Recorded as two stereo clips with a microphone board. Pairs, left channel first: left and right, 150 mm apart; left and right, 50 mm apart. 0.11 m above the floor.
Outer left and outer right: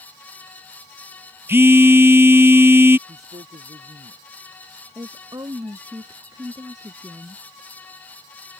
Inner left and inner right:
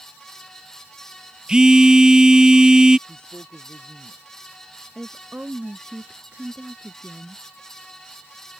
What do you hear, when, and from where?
1.5 s a phone buzzing: 15° right (ahead or behind)
3.1 s a man speaking: 50° right (ahead or behind)
5.0 s a woman speaking: 25° right (ahead or behind)